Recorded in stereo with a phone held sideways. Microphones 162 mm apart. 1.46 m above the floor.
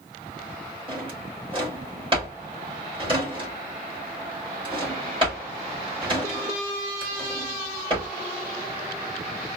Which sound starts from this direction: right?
A drawer, at 0.9 s.